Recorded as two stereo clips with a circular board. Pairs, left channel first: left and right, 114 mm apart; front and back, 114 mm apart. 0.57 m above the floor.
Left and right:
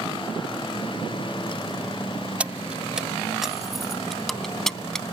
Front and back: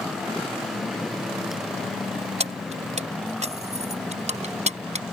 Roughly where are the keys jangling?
Behind.